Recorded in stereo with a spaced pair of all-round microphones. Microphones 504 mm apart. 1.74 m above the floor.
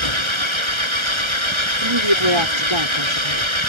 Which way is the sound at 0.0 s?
65° right (ahead or behind).